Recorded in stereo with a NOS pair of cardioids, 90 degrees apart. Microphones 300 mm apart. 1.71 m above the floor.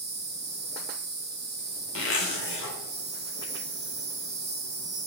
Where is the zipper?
45° left, 0.7 m.